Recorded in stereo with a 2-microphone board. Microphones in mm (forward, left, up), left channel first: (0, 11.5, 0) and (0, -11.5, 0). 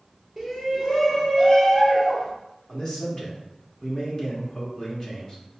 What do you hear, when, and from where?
0.4 s a shout: 20° right (ahead or behind), 1.0 m; by 2.3 s 25° left (ahead or behind), 2.5 m
2.7 s a man speaking: 25° left (ahead or behind), 0.9 m